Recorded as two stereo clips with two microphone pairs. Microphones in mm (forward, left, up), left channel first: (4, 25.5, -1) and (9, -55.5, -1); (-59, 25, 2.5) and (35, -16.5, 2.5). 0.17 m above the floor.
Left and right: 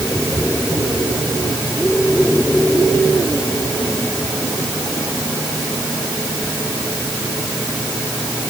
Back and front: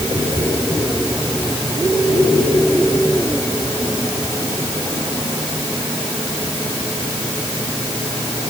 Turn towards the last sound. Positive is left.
No sound to turn to.